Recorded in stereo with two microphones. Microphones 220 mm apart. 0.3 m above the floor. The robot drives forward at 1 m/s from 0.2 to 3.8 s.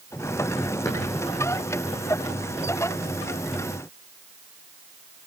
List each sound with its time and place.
0.8 s a drawer: 15° left (ahead or behind), 6.5 m